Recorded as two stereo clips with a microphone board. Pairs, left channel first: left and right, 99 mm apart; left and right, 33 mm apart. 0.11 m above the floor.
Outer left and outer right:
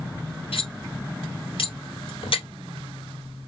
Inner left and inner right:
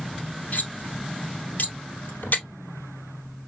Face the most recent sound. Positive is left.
turn(degrees=65)  # may be behind; listen again after turning